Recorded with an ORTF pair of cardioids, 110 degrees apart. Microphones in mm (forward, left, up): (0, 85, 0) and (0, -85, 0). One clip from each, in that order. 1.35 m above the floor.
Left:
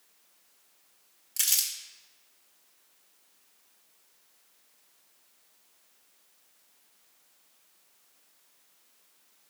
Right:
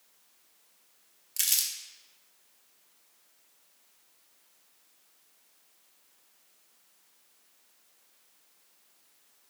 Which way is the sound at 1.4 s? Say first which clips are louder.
Left 1 dB; straight ahead.